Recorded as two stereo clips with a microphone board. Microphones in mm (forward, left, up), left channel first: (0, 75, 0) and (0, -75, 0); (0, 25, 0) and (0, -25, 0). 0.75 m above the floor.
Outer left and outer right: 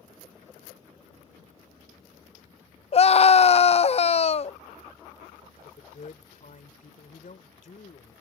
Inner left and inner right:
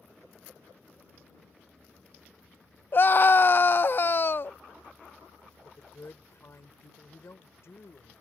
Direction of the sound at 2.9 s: 45° left (ahead or behind).